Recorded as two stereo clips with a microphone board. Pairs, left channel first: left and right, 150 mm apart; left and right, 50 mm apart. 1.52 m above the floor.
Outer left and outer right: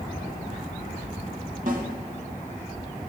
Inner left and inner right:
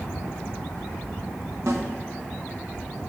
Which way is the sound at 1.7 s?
65° right (ahead or behind).